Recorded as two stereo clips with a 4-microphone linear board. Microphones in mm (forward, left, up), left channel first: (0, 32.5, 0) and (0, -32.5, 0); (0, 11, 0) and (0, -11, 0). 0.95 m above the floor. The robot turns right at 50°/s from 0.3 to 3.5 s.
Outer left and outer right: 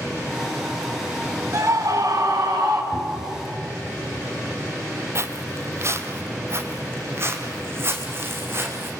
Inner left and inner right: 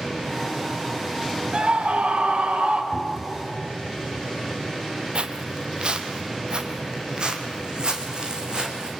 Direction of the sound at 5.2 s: 45° right (ahead or behind).